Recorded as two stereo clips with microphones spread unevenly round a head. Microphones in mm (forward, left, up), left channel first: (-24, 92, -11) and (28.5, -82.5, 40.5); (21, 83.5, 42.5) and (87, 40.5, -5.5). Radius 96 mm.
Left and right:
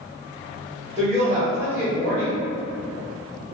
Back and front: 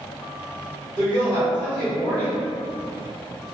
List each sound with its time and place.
1.0 s a woman speaking: 145° right, 1.0 m